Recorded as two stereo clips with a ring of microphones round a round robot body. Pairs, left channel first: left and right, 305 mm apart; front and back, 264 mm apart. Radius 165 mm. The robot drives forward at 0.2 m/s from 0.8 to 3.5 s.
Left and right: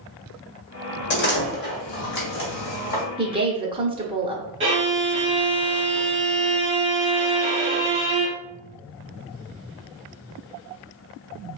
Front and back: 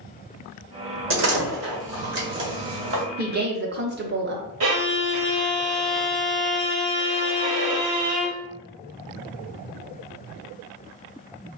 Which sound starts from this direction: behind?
A violin, at 4.6 s.